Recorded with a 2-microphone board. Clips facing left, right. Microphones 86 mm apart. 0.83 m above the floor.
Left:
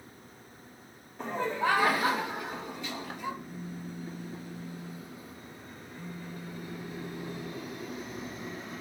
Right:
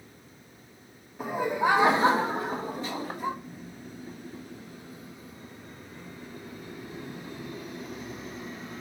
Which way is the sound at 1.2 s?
5° right (ahead or behind).